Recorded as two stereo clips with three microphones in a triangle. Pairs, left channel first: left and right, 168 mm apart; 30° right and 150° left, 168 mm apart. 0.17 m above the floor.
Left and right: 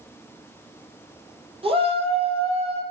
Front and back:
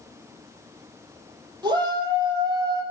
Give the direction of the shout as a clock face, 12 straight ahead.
5 o'clock.